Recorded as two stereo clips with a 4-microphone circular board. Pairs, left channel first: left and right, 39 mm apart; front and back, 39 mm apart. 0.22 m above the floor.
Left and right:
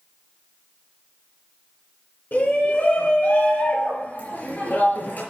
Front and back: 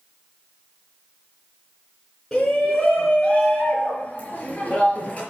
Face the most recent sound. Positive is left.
turn(degrees=60)